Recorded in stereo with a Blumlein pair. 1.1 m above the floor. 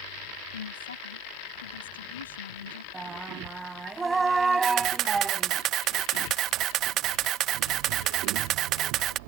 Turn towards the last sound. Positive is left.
turn(degrees=-35)